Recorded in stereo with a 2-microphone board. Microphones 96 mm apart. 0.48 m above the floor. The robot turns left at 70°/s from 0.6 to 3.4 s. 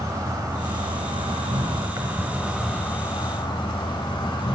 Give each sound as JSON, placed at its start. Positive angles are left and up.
{"t": 0.0, "sound": "an insect", "azimuth_deg": -40, "distance_m": 1.0}